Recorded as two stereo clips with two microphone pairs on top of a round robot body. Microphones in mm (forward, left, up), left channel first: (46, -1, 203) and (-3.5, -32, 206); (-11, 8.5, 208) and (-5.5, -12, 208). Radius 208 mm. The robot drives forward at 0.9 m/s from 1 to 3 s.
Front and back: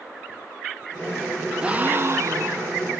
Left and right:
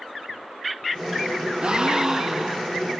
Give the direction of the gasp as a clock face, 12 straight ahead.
3 o'clock.